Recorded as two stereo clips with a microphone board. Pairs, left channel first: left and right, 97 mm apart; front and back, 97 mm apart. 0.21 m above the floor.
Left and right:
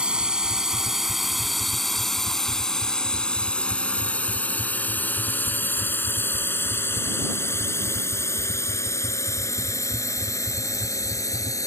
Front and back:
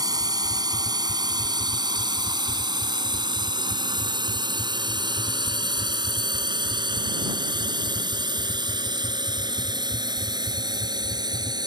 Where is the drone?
165° right; by 11.7 s 140° left.